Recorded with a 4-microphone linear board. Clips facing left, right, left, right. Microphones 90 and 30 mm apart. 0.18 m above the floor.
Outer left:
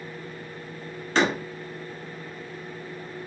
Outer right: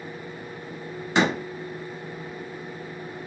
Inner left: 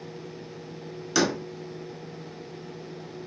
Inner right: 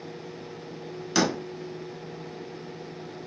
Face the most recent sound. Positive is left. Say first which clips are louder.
# outer right 1 dB, even
turn(degrees=-15)  # may be behind; listen again after turning